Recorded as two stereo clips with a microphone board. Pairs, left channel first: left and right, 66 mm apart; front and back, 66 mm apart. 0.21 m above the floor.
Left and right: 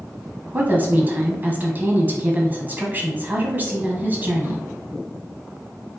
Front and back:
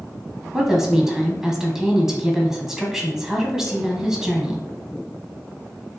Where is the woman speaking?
105° right, 1.2 m.